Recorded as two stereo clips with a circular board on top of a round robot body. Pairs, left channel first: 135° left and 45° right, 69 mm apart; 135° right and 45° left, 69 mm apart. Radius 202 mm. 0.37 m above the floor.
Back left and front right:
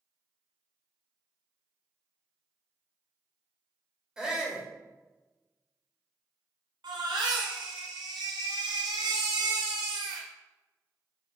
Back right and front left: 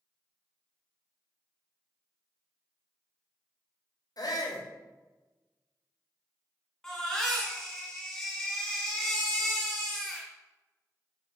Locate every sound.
4.2 s a shout: 125° right, 2.5 m
6.8 s a baby crying: 50° right, 2 m